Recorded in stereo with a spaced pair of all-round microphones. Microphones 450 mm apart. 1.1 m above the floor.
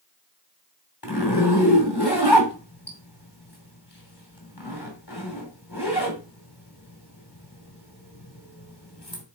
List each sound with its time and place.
1.0 s a zipper: 60° left (ahead or behind), 3 m